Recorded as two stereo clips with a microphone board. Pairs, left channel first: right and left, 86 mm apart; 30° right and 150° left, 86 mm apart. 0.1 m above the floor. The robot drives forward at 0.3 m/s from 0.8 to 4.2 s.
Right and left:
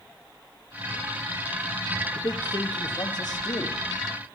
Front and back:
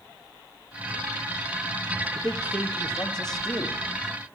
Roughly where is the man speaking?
Right.